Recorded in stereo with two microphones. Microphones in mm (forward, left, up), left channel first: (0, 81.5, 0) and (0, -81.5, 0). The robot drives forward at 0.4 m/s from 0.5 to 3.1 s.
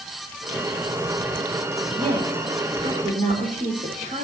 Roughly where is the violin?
I don't hear a violin.